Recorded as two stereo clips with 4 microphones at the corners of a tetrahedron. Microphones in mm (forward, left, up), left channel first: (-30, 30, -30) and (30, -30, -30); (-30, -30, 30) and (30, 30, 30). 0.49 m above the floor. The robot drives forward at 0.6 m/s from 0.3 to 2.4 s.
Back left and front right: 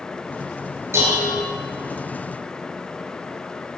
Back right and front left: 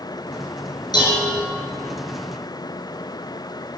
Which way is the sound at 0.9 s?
105° right.